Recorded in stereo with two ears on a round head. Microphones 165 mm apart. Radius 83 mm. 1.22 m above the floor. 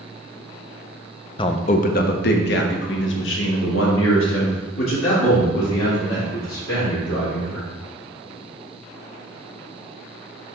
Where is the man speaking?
25° left (ahead or behind), 0.5 m; by 7.7 s 85° left, 3.5 m.